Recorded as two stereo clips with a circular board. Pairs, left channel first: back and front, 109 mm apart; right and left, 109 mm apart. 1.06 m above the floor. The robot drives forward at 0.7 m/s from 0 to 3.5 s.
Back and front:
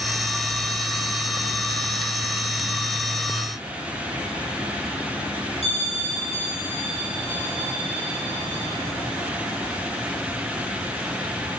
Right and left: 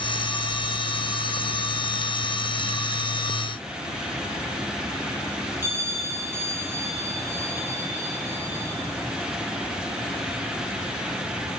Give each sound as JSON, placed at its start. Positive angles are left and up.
{"t": 5.6, "sound": "a bell", "azimuth_deg": 160, "distance_m": 3.5}